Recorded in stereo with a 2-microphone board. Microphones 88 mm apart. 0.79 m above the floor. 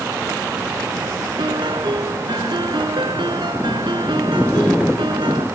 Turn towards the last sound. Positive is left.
turn(degrees=-75)  # may be behind; listen again after turning